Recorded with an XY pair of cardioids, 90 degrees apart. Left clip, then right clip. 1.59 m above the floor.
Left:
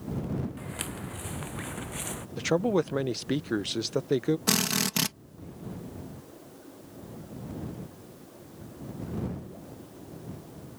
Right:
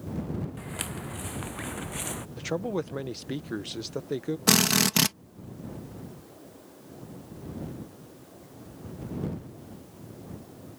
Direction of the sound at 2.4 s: 35° left.